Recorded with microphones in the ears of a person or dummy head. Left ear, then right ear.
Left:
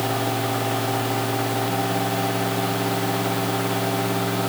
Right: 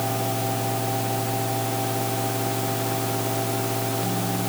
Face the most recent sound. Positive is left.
No sound to turn to.